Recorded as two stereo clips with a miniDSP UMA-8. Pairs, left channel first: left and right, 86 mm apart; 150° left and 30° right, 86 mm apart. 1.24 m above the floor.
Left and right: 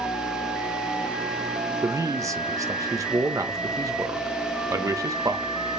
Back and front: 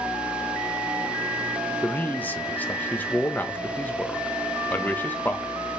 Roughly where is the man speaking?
Behind right.